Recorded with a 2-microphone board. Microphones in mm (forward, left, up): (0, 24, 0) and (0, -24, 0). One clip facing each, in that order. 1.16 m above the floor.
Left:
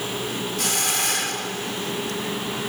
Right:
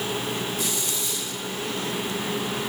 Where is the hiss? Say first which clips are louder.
Left 4 dB; 85° left.